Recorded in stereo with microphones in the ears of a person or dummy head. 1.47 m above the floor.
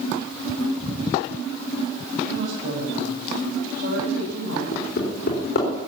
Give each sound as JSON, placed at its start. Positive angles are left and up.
{"t": 2.2, "sound": "a woman speaking", "side_deg": -55, "distance_m": 9.0}
{"t": 4.7, "sound": "hammering", "side_deg": 60, "distance_m": 4.0}